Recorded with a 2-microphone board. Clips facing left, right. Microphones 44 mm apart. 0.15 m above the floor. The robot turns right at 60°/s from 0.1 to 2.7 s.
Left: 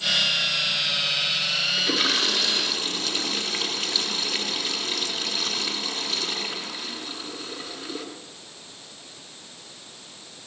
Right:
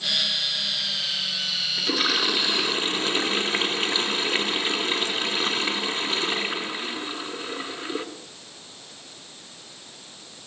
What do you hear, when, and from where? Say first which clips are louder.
1.8 s a toilet flushing: right 2 dB; 175° left, 2 m; by 8.1 s 130° right, 2 m